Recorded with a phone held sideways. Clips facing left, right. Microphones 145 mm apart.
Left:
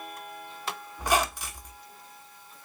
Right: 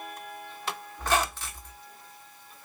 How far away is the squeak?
About 0.6 m.